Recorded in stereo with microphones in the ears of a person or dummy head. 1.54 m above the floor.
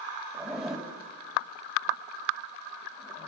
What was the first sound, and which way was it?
A zipper, 5° right (ahead or behind).